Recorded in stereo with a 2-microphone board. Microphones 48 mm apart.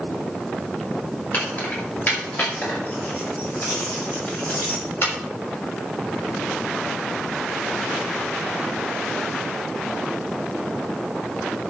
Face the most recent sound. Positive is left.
turn(degrees=50)  # may be behind; listen again after turning